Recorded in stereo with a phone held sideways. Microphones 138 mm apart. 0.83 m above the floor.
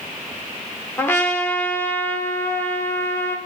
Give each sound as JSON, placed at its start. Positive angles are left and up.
{"t": 1.0, "sound": "a trumpet", "side_deg": 15, "distance_m": 0.9}